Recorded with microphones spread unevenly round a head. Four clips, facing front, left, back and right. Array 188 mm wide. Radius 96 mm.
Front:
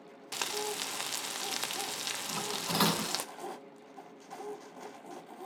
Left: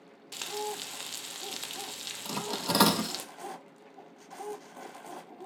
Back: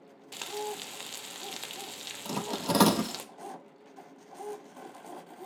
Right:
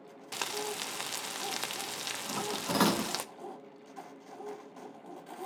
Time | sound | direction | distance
0.3 | frying | 45° right | 0.6 m
2.2 | cutlery clinking | 165° left | 0.7 m